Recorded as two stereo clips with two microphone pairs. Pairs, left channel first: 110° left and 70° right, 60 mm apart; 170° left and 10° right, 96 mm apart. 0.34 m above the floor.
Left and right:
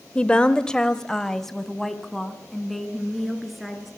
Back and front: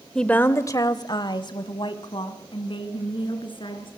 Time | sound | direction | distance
0.1 | a woman speaking | 105° left | 0.9 m